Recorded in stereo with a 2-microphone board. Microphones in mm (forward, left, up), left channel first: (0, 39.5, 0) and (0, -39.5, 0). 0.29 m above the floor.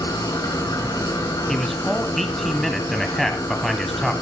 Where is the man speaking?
Centre (ahead or behind), 1.7 m.